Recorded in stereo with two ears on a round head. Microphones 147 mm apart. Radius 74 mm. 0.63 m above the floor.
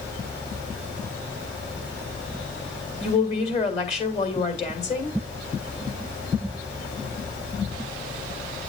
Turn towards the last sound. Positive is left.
turn(degrees=40)  # may be behind; listen again after turning